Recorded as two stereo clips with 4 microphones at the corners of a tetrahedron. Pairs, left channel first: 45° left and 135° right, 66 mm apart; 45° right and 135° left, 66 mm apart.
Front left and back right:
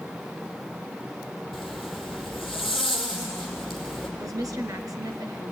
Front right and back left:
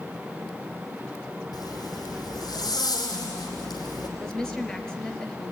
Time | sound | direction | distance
1.5 | a zipper | 50° right | 5 m
4.2 | a woman speaking | 125° right | 3 m